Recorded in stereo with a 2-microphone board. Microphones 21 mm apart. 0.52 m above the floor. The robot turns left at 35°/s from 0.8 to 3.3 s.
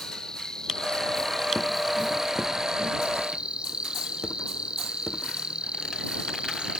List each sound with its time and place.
0.0 s an insect: 35° left; by 6.8 s 55° right